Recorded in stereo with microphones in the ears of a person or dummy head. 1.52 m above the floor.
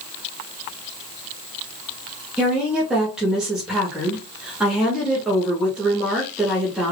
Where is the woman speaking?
5° right (ahead or behind), 2 m.